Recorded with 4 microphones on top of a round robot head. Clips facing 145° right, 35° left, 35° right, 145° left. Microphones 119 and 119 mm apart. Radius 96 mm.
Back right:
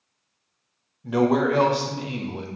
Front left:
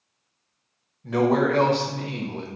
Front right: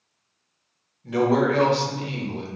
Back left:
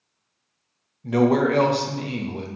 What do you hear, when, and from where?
1.0 s a man speaking: 135° left, 0.6 m